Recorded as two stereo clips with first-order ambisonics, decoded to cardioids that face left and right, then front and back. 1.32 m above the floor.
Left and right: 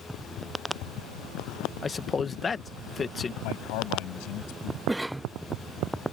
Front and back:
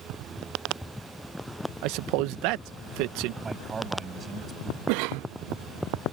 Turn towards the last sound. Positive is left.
turn(degrees=-175)